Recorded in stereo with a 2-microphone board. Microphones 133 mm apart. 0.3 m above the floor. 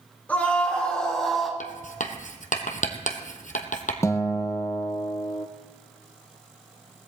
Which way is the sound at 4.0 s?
20° left (ahead or behind).